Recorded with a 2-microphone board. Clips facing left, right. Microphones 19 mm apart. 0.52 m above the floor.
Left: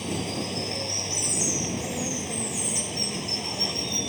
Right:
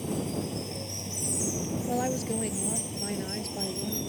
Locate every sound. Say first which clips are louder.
0.0 s running water: left 2 dB; 40° left (ahead or behind)
1.9 s a woman speaking: right 1 dB; 45° right (ahead or behind)